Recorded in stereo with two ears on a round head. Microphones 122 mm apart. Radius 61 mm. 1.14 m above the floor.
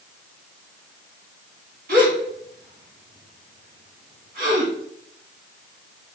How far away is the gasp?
About 2.5 m.